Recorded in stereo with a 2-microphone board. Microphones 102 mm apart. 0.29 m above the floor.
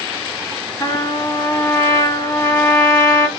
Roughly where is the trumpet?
Left.